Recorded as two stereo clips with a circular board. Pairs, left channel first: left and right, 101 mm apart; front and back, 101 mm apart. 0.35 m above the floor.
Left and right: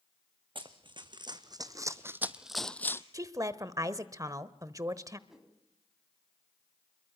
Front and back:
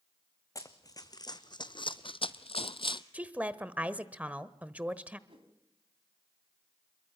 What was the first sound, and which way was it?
Running footsteps, 55° right.